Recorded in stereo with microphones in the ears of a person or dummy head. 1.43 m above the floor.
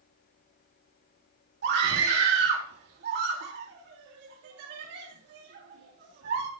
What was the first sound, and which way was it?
A scream, 60° right (ahead or behind).